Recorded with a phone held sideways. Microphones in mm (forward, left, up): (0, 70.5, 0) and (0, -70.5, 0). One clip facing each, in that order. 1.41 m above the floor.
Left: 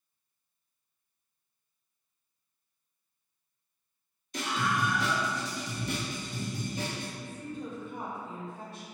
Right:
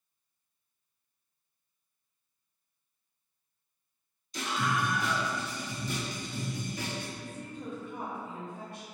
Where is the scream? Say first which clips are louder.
Left 1 dB; 60° left (ahead or behind), 1.0 m; by 7.1 s 15° left (ahead or behind), 0.8 m.